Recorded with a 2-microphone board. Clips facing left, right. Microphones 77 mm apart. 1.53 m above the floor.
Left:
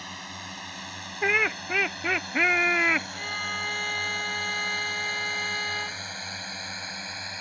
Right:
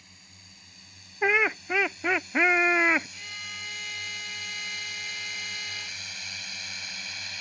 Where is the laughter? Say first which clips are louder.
Right 1 dB; 10° right (ahead or behind).